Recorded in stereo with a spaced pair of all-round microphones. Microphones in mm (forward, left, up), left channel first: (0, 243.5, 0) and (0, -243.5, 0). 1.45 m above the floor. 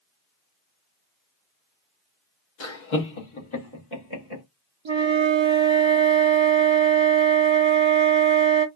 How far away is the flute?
About 0.6 m.